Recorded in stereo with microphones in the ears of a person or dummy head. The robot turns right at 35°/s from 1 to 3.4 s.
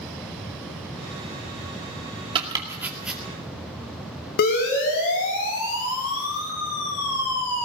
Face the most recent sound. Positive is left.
turn(degrees=80)